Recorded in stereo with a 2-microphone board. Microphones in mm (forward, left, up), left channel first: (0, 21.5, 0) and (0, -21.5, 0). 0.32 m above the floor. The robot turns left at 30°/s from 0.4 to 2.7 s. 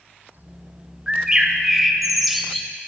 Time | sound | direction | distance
1.1 | a bird | 135° right | 0.6 m